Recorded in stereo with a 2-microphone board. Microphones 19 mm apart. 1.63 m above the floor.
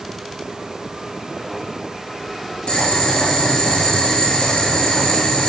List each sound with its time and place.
2.7 s boiling: 70° left (ahead or behind), 5.5 m